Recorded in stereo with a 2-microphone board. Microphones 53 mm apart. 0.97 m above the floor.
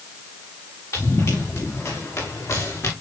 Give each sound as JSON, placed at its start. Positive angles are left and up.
{"t": 0.9, "sound": "running footsteps", "side_deg": 75, "distance_m": 7.0}